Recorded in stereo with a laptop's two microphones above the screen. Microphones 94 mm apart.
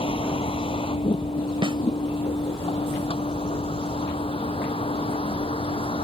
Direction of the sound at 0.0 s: 85° left.